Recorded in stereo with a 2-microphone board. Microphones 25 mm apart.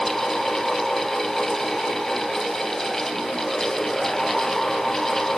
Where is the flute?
I don't hear a flute.